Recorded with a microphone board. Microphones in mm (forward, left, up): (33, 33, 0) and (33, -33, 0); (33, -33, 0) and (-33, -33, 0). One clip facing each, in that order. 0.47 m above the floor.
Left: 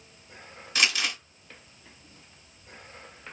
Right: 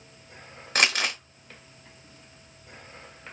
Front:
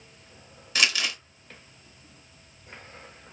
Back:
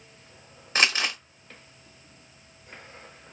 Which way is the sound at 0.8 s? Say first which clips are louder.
Right 3 dB, back 2 dB; 125° right.